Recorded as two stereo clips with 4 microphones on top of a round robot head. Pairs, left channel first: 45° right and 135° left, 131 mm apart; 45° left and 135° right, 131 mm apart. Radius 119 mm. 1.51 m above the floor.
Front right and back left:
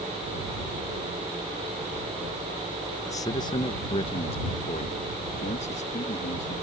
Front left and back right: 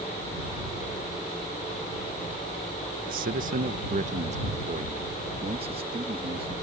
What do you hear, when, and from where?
3.1 s a man speaking: 115° right; by 6.5 s 80° right